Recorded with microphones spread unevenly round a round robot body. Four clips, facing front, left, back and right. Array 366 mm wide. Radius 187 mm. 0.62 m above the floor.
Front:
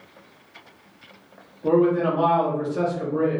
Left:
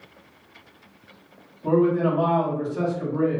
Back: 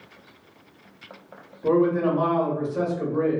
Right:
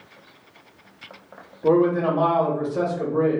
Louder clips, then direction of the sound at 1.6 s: Right 2 dB, front 1 dB; 90° right.